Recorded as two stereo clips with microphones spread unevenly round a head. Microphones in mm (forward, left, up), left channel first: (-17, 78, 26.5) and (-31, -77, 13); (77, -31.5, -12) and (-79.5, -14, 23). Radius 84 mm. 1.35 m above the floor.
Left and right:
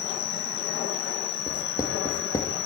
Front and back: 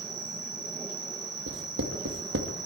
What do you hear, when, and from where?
0.0 s an insect: 105° left, 3 m
1.5 s writing: 155° left, 2 m